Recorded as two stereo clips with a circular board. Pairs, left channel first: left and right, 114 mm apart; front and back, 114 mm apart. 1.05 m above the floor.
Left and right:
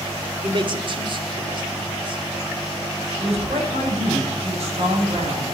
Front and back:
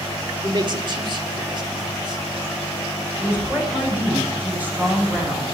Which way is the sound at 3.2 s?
105° right.